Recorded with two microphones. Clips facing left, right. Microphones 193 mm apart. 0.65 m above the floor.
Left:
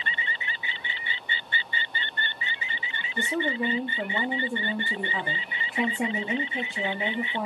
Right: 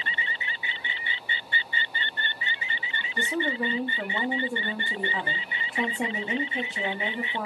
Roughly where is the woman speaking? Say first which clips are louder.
Left 1 dB; centre.